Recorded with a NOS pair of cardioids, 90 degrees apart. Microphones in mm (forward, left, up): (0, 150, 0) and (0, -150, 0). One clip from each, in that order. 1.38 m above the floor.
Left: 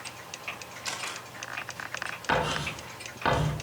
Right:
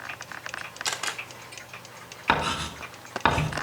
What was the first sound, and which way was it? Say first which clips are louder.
A camera shutter: right 4 dB; 65° right.